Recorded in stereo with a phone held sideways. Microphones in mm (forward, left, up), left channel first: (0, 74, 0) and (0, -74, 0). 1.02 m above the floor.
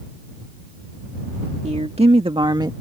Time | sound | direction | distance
1.6 | a woman speaking | 50° right (ahead or behind) | ?